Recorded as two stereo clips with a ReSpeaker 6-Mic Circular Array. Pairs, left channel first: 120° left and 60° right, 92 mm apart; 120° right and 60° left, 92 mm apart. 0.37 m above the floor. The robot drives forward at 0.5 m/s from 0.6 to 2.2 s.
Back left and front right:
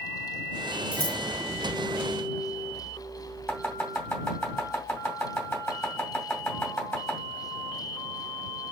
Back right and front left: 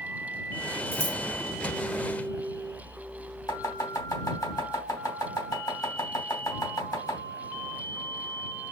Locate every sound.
0.9 s scissors: straight ahead, 1.5 m
3.5 s chopping: 160° right, 2.5 m